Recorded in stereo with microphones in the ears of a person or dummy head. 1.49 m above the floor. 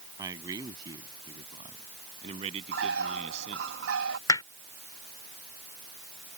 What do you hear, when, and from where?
0.2 s a man speaking: 20° right (ahead or behind); by 3.7 s 40° right (ahead or behind)
2.7 s a bird: 85° right
4.3 s hammering: 15° left (ahead or behind)